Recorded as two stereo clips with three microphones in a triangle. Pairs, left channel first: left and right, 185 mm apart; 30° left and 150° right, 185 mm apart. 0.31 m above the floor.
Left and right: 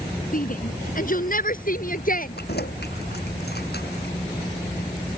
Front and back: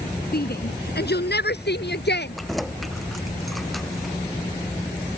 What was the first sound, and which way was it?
A shout, 55° left.